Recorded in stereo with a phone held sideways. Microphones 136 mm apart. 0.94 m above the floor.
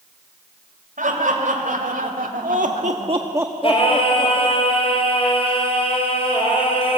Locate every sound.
1.0 s laughter: 75° right (ahead or behind), 3.5 m; by 4.6 s 30° left (ahead or behind), 2.5 m
3.6 s singing: 45° left (ahead or behind), 4.5 m